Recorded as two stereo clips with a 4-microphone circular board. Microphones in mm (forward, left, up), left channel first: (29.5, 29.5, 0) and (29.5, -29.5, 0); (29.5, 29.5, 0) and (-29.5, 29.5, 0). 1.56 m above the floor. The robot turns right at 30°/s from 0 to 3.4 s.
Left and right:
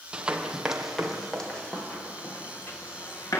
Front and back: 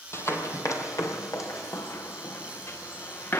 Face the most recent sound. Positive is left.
turn(degrees=65)